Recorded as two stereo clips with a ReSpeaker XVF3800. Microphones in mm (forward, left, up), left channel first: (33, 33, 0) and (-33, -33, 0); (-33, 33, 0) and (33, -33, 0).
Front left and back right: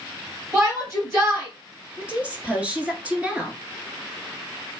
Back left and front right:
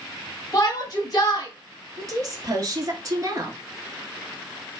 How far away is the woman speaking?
About 1.5 m.